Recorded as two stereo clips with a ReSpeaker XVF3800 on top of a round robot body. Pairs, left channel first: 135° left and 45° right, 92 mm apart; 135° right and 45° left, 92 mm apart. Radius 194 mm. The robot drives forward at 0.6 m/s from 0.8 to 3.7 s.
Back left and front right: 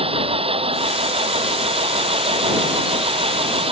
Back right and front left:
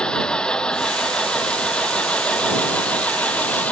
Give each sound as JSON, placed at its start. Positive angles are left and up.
{"t": 0.0, "sound": "an engine running", "azimuth_deg": -55}